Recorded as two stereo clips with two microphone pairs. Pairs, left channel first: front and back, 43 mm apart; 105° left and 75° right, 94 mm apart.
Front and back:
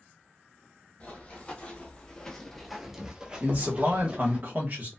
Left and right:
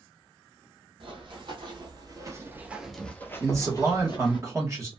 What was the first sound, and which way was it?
Running footsteps, 60° right.